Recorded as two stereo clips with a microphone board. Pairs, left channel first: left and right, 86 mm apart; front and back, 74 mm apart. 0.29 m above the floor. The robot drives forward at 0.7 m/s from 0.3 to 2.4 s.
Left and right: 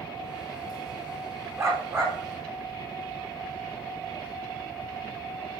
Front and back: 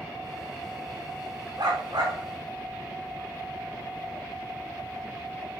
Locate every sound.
1.6 s a dog barking: 150° right, 6 m; by 2.2 s 155° right, 6.5 m